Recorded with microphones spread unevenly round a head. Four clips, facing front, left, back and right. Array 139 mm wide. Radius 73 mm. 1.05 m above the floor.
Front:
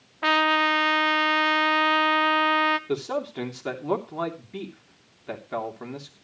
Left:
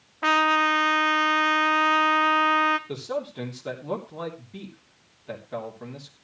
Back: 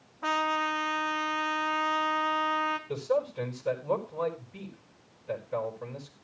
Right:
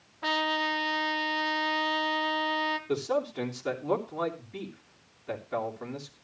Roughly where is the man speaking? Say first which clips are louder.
Right 2 dB, front 1 dB; ahead.